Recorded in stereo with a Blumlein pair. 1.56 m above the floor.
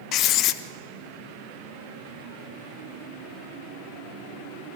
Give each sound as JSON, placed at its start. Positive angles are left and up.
{"t": 0.1, "sound": "writing", "azimuth_deg": 35, "distance_m": 0.9}